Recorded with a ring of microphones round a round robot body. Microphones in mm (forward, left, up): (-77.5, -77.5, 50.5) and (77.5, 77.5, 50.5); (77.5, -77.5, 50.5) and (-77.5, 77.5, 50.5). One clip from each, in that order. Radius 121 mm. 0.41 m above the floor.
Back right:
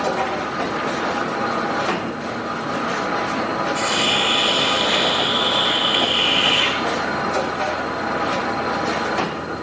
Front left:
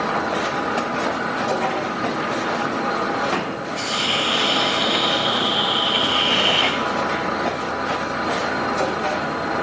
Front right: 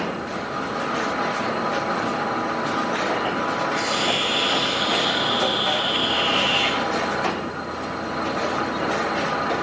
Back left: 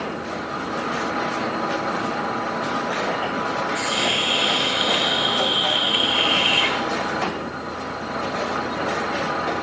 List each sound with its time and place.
3.8 s a hiss: straight behind, 9 m